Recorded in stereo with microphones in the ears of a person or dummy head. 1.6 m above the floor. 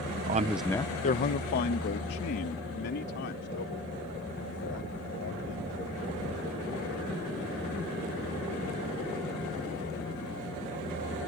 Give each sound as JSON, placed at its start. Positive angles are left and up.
{"t": 0.3, "sound": "a man speaking", "side_deg": -45}